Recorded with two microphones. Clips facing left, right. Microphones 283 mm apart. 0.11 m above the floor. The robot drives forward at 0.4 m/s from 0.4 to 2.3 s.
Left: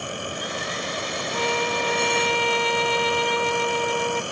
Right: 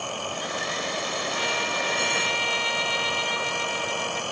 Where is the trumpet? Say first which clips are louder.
Left 6 dB; 55° left (ahead or behind); by 4.2 s 60° left (ahead or behind).